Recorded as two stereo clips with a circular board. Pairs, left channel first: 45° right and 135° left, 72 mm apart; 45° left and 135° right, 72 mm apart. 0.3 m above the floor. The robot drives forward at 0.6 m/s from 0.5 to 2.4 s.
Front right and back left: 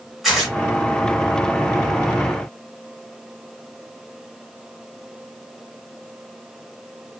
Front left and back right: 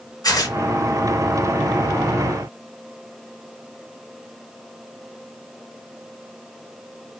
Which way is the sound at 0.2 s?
45° left.